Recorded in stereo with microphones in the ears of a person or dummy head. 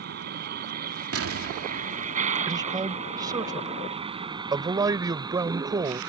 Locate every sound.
0.0 s a vehicle: 50° right (ahead or behind); by 6.1 s 10° right (ahead or behind)
1.1 s an explosion: 70° right (ahead or behind)
2.5 s a man speaking: 15° right (ahead or behind)